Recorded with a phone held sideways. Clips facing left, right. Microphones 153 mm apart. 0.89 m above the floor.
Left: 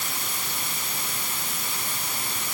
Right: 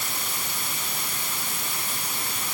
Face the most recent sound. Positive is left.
No sound to turn to.